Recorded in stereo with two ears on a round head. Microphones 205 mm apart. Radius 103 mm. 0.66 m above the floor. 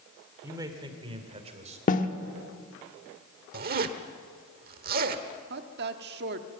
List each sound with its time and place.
0.4 s a man speaking: 15° right (ahead or behind), 2.5 m; by 1.8 s 30° right (ahead or behind), 3 m
1.9 s a snare drum: 35° left (ahead or behind), 1.1 m
3.5 s a zipper: 40° right (ahead or behind), 1.1 m
5.5 s a woman speaking: 45° right (ahead or behind), 1.4 m